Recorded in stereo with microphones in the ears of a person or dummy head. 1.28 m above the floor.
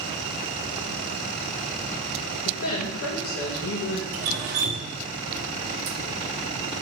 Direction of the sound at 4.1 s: 35° right (ahead or behind).